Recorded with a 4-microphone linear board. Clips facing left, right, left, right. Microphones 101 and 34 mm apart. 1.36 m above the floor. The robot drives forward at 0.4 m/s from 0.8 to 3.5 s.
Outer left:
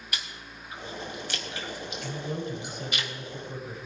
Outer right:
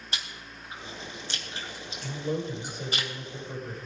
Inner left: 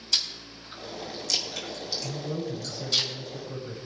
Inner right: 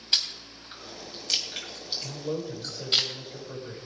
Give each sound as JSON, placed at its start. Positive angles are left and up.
{"t": 0.1, "sound": "chewing", "side_deg": -30, "distance_m": 4.0}
{"t": 2.0, "sound": "a man speaking", "side_deg": -65, "distance_m": 7.0}